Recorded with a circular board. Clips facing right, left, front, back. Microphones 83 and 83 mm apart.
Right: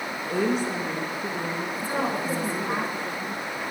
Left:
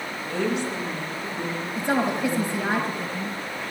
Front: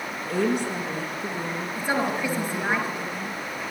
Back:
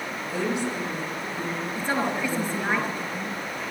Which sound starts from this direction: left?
A woman speaking, at 1.8 s.